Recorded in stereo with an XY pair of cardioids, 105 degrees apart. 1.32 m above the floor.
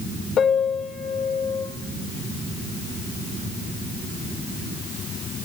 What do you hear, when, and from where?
0.4 s a piano: 60° left, 4 m